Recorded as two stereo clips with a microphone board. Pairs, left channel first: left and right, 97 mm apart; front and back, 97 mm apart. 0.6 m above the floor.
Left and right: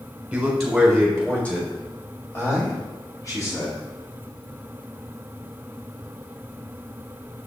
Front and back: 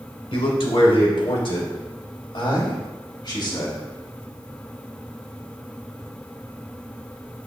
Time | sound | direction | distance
0.3 | a man speaking | 10° right | 1.8 m